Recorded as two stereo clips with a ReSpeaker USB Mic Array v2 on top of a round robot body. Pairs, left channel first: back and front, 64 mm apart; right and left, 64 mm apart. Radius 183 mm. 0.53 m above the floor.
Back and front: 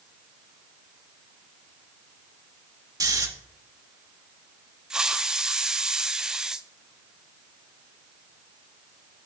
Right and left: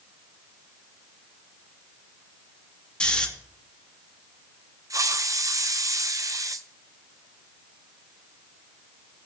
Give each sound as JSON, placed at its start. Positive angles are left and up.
{"t": 3.0, "sound": "snoring", "azimuth_deg": -15, "distance_m": 1.9}
{"t": 4.9, "sound": "a hiss", "azimuth_deg": 80, "distance_m": 0.8}